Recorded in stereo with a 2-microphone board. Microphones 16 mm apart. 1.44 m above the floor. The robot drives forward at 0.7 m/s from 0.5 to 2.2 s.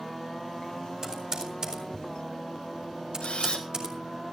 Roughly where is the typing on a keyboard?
Right.